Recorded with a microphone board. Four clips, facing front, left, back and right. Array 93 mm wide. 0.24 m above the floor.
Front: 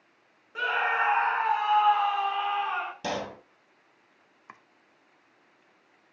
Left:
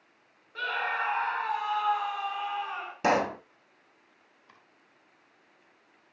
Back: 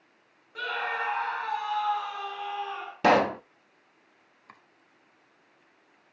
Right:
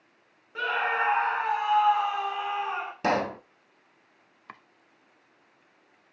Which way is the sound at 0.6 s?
35° right.